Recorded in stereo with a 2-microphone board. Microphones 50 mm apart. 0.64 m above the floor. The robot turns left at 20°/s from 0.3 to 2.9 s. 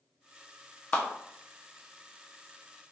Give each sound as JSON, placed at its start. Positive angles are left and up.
{"t": 0.9, "sound": "a clap", "side_deg": 30, "distance_m": 0.7}